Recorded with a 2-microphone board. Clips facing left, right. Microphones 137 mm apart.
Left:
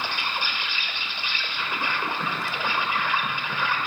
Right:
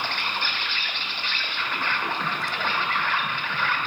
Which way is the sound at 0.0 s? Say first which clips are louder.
Even; 15° left (ahead or behind).